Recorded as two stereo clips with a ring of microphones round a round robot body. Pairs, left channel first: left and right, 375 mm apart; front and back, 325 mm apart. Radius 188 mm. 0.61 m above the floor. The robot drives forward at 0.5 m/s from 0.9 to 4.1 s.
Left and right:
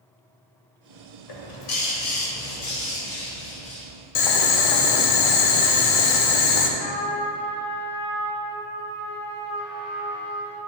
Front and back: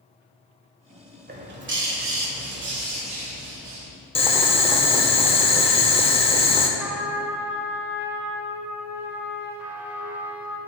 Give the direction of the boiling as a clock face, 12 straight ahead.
10 o'clock.